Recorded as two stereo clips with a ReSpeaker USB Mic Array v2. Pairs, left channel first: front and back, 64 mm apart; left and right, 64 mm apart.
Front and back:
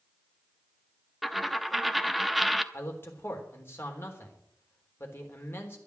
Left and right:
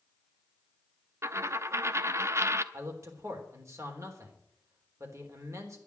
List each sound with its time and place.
1.2 s a dropped coin: 90° right, 0.7 m
2.7 s a man speaking: 55° right, 3.5 m